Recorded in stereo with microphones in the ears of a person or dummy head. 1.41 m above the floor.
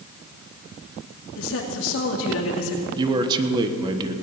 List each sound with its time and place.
1.4 s a woman speaking: 75° left (ahead or behind), 2.5 m
3.0 s a man speaking: 25° right (ahead or behind), 1.2 m